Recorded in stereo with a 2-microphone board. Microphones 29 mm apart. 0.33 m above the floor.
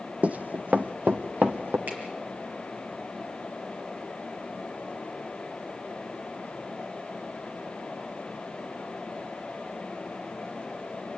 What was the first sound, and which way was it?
Running footsteps, 50° right (ahead or behind).